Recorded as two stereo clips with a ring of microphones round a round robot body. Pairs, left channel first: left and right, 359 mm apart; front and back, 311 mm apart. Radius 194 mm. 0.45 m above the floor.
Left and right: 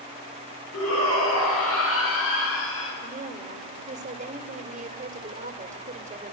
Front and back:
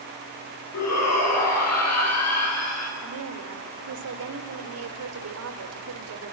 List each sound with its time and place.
0.7 s a shout: 35° left, 8 m
3.0 s a woman speaking: 155° right, 2 m